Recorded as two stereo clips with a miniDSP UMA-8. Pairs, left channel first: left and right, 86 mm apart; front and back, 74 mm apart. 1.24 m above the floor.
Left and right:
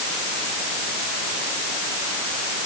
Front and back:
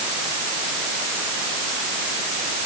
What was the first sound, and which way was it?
Only background noise.